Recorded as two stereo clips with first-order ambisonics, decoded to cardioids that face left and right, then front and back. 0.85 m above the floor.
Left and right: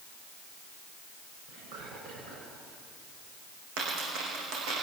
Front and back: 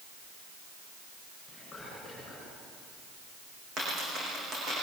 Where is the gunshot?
No gunshot in this recording.